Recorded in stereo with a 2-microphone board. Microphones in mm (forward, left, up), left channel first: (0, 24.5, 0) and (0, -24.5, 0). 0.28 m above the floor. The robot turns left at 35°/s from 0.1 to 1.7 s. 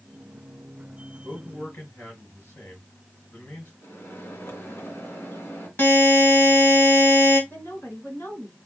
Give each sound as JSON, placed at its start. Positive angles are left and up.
{"t": 1.2, "sound": "a man speaking", "side_deg": 70, "distance_m": 3.5}
{"t": 3.8, "sound": "a microwave", "side_deg": 55, "distance_m": 2.5}
{"t": 5.8, "sound": "a buzzer", "side_deg": 45, "distance_m": 2.0}
{"t": 7.5, "sound": "a woman speaking", "side_deg": 50, "distance_m": 3.0}